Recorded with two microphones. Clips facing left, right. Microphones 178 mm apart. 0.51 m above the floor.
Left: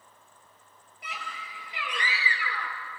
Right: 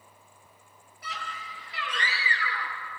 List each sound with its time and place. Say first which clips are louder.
1.0 s a scream: right 1 dB; 15° left (ahead or behind), 9.5 m